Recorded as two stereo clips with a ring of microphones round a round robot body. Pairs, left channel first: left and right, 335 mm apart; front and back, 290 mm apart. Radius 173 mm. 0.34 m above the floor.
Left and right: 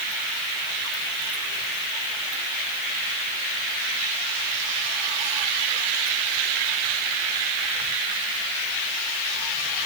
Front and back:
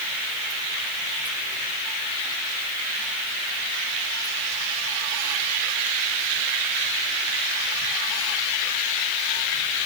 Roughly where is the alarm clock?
No alarm clock in this recording.